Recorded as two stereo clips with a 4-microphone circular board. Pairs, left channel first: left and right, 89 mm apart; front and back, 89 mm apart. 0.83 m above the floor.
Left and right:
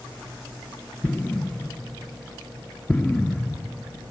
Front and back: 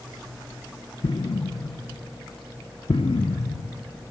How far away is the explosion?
About 0.6 m.